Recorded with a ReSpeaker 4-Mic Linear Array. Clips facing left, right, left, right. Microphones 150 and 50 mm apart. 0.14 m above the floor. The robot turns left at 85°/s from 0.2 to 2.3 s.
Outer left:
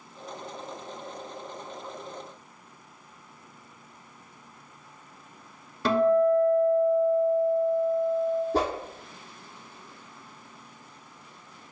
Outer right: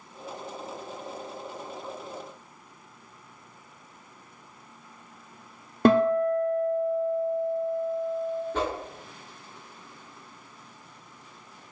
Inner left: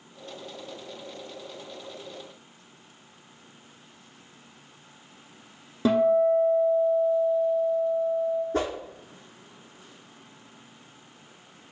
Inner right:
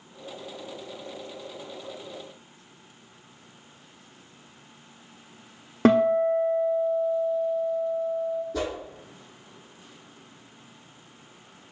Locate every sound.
5.8 s a guitar: 55° right (ahead or behind), 0.5 m
8.5 s a whoosh: 40° left (ahead or behind), 0.9 m